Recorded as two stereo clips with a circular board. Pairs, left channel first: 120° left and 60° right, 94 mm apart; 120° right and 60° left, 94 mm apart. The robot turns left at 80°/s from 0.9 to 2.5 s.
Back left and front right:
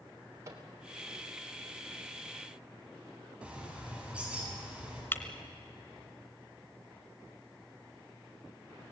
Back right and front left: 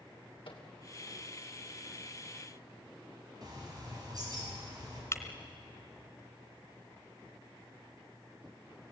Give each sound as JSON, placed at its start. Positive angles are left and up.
{"t": 0.5, "sound": "a microwave", "azimuth_deg": -115, "distance_m": 3.0}
{"t": 3.4, "sound": "a bird", "azimuth_deg": 20, "distance_m": 7.0}
{"t": 5.1, "sound": "breaking glass", "azimuth_deg": -175, "distance_m": 1.8}